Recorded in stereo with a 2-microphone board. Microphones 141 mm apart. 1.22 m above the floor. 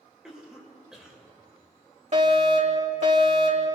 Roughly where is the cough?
Centre.